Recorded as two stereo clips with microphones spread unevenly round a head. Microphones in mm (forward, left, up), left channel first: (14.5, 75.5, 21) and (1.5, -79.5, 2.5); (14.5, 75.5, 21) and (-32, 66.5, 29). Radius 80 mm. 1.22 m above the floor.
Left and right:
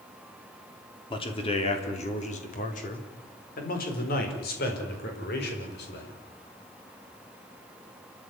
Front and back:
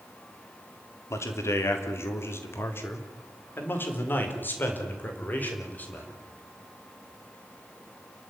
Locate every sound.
1.1 s a man speaking: 25° left, 3.5 m; by 6.2 s 65° left, 6 m